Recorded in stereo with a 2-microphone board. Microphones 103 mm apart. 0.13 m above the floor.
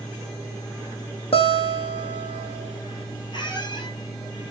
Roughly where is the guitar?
Left.